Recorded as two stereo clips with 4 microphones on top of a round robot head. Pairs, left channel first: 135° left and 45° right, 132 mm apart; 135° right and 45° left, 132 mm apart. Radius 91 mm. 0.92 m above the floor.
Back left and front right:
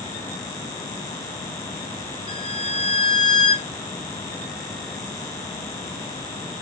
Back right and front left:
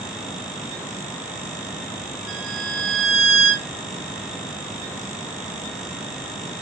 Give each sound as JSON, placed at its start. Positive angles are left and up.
{"t": 2.3, "sound": "a violin", "azimuth_deg": 120, "distance_m": 2.5}